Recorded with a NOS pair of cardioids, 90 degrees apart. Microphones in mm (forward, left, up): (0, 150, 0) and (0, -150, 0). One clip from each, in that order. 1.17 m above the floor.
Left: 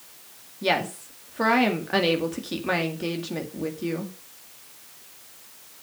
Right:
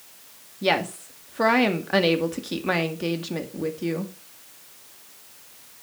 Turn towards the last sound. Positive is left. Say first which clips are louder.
# right 1 dB
turn(degrees=-15)